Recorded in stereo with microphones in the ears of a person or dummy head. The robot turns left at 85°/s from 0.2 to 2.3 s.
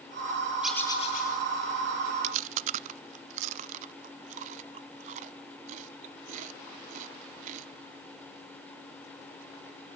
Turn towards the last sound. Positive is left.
turn(degrees=-40)  # may be behind; listen again after turning